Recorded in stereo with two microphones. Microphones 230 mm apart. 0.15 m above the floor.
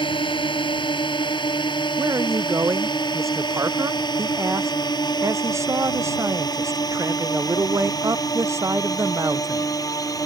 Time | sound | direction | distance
0.0 | a drone | 20° left (ahead or behind) | ?
2.0 | a man speaking | 10° right (ahead or behind) | ?